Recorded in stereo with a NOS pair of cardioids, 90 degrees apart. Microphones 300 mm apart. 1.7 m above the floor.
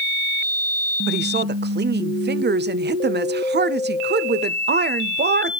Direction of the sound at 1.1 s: 35° right.